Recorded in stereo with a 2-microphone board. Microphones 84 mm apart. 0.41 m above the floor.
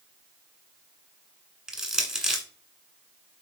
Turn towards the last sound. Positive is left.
turn(degrees=-10)  # may be behind; listen again after turning